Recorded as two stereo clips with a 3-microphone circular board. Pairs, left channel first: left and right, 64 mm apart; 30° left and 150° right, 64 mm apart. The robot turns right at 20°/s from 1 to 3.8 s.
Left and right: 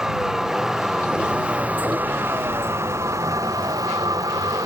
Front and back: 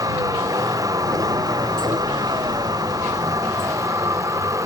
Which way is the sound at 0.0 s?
170° right.